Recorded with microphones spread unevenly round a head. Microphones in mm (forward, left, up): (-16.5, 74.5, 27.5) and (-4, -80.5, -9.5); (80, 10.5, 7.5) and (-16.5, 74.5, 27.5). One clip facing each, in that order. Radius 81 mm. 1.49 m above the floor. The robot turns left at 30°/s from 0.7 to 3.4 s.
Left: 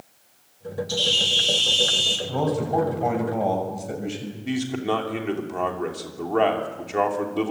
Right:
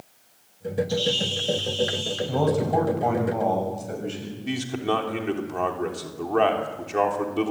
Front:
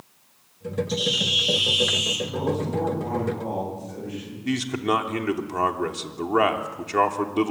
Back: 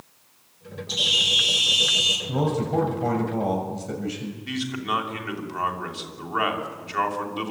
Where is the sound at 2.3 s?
160° right, 7 m; by 4.3 s 170° left, 7 m.